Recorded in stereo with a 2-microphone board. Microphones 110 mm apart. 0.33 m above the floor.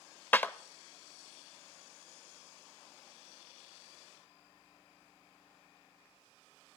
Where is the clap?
15° left (ahead or behind), 0.7 m.